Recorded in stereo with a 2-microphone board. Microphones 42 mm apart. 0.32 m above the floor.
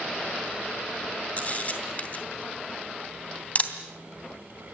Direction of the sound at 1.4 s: 35° left (ahead or behind).